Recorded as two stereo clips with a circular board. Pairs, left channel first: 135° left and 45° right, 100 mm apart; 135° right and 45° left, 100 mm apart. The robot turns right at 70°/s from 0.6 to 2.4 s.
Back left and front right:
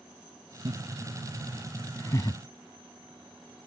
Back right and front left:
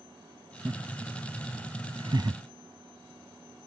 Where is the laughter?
20° right; by 2.4 s 100° left.